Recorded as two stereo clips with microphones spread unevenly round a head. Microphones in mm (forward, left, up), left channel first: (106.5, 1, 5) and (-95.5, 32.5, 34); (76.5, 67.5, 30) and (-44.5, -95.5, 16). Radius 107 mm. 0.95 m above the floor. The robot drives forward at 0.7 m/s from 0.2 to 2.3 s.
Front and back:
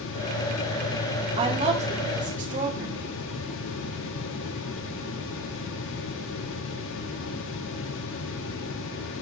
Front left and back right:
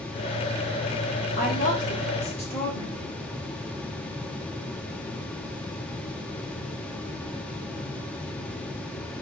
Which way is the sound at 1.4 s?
105° left.